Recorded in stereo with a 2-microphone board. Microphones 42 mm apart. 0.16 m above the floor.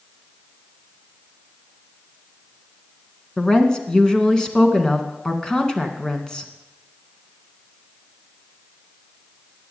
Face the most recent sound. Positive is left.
turn(degrees=20)  # may be behind; listen again after turning